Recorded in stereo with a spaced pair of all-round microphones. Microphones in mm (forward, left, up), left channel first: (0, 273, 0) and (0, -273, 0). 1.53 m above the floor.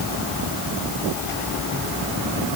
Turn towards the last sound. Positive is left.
No sound to turn to.